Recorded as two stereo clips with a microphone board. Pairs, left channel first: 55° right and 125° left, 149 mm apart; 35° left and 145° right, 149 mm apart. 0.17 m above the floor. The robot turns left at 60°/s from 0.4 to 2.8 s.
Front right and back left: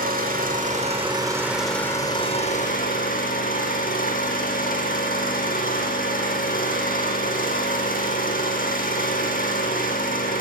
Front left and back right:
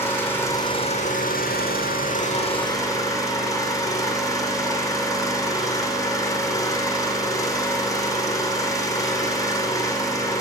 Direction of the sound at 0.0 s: 110° left.